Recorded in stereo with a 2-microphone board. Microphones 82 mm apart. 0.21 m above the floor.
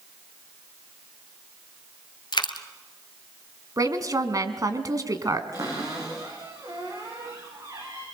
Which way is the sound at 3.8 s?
45° right (ahead or behind).